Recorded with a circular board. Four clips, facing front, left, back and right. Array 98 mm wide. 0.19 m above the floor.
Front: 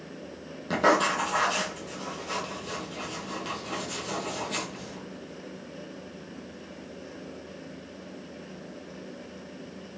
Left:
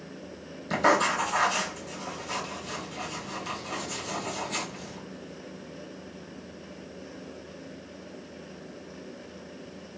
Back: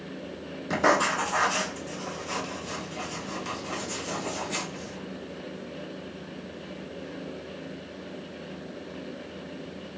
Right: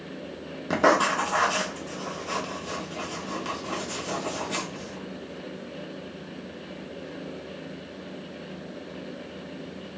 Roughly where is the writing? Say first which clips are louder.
Right 2 dB, even; right.